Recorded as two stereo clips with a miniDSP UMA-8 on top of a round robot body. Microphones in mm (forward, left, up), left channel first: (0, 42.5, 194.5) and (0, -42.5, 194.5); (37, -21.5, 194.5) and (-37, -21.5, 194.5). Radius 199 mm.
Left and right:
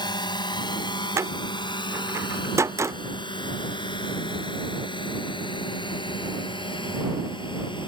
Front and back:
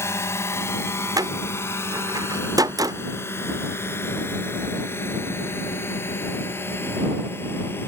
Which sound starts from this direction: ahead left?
A drone, at 0.0 s.